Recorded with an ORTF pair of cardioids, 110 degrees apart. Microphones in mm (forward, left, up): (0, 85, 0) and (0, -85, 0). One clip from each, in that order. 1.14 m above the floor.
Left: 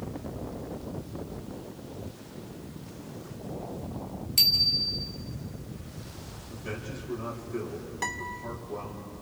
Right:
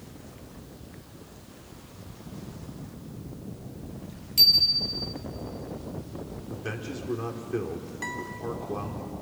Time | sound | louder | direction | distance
4.4 | a bicycle bell | right 3 dB | 15° left | 3 m
6.5 | a man speaking | right 2 dB | 65° right | 4 m
8.0 | a guitar | left 2 dB | 30° left | 2 m